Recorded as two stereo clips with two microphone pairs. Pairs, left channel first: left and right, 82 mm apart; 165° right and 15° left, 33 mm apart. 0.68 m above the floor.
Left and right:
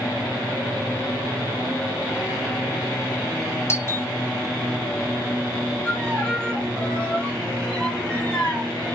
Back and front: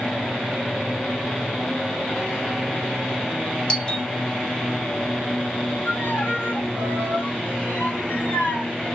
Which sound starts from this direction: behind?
A violin, at 5.8 s.